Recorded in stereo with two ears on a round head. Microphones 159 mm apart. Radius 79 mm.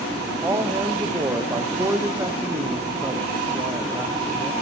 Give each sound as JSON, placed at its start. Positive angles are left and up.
{"t": 0.4, "sound": "a man speaking", "side_deg": -15, "distance_m": 1.0}